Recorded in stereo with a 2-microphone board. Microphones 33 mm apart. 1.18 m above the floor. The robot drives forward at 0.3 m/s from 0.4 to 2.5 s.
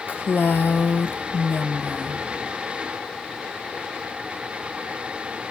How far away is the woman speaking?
About 0.7 m.